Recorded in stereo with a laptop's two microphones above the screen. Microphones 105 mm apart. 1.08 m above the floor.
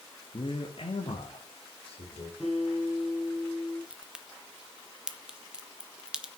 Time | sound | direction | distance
0.3 | a man speaking | 45° left (ahead or behind) | 1.3 m
2.4 | a guitar | 5° right (ahead or behind) | 6 m
3.9 | a crack | 10° right (ahead or behind) | 0.8 m